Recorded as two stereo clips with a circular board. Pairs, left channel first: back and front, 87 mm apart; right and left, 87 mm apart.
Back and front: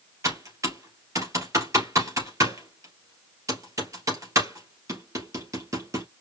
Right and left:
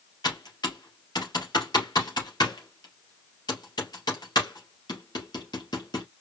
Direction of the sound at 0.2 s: 55° right.